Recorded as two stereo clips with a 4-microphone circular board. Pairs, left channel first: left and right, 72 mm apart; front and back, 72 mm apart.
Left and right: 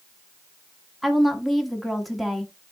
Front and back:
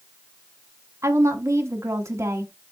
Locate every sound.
1.0 s a woman speaking: straight behind, 0.8 m